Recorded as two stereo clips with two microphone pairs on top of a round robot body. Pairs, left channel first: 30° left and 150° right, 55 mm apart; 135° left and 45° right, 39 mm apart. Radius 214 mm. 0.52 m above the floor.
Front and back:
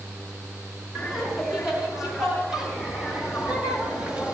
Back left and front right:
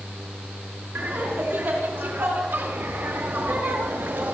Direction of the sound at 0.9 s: 65° right.